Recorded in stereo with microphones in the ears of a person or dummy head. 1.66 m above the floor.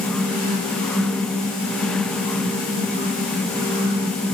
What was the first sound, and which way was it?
Only background noise.